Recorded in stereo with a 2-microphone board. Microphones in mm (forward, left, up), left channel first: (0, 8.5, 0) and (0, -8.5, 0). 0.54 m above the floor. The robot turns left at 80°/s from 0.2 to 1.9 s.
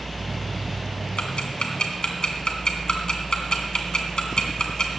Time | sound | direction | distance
1.2 | ticking | 75° left (ahead or behind) | 2 m